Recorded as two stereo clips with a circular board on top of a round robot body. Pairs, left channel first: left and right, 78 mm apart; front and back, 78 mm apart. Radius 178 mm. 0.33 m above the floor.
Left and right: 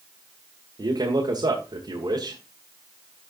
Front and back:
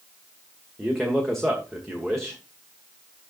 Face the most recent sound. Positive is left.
turn(degrees=-90)